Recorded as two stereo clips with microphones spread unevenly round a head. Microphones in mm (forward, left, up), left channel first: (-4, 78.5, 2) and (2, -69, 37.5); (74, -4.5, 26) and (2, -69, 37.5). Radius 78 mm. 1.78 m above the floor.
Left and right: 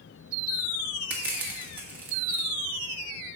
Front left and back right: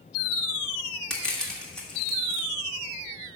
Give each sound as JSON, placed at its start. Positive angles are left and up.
{"t": 1.1, "sound": "crushing", "azimuth_deg": -50, "distance_m": 1.2}